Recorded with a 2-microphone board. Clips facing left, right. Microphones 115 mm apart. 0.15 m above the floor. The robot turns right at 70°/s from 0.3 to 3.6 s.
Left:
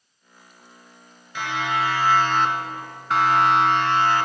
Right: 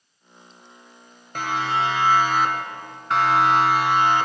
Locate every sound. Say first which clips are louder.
1.4 s a siren: right 1 dB; 50° right (ahead or behind), 3.5 m; by 4.3 s 20° right (ahead or behind), 2.5 m